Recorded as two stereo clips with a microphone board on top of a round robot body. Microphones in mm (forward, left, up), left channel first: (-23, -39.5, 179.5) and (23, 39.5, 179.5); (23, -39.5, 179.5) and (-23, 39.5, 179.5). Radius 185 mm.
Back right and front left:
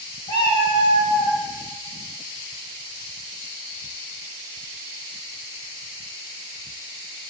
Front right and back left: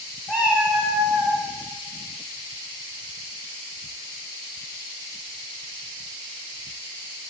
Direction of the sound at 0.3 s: 125° right.